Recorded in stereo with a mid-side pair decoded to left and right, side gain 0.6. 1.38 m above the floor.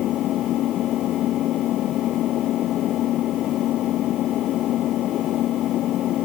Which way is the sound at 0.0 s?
55° left.